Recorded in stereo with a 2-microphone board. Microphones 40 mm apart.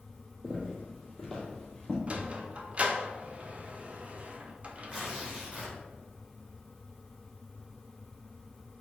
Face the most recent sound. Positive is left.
turn(degrees=-30)  # may be behind; listen again after turning